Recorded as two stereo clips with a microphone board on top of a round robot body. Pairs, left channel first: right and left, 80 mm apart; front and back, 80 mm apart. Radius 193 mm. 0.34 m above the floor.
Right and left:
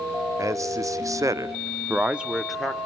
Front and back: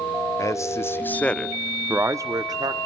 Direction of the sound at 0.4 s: 45° left.